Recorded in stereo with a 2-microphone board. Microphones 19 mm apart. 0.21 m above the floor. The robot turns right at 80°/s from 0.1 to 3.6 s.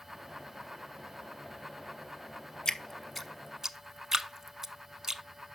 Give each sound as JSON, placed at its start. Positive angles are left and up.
{"t": 2.6, "sound": "dripping", "side_deg": 35, "distance_m": 0.7}